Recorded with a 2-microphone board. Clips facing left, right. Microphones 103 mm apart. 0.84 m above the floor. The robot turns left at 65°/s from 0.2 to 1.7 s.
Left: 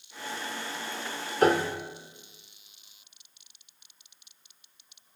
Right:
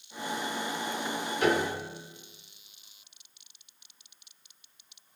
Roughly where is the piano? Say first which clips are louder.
Left 4 dB; left.